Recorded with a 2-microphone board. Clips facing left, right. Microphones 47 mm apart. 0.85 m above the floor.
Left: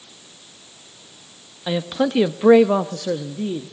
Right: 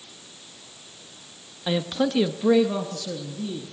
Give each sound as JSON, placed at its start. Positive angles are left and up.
{"t": 1.7, "sound": "a man speaking", "side_deg": 5, "distance_m": 1.3}